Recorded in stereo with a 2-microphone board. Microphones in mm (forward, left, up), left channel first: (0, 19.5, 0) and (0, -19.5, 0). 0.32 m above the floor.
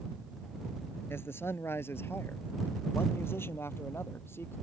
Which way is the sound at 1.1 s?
75° left (ahead or behind).